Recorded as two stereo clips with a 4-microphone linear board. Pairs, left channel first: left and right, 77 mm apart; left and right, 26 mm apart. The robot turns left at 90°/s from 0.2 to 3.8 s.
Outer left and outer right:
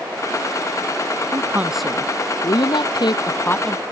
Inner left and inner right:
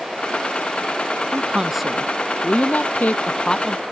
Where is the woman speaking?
135° right; by 3.8 s straight ahead.